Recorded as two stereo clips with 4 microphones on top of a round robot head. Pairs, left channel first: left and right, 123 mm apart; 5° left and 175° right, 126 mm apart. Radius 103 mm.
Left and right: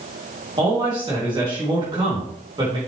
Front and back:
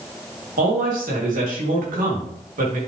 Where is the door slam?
No door slam in this recording.